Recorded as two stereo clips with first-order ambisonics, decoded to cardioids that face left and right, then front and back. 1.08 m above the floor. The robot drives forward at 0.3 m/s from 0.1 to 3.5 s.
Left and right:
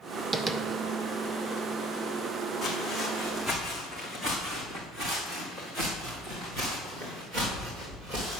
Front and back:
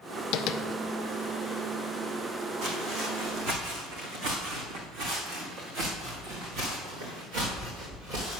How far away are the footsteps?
About 2.5 m.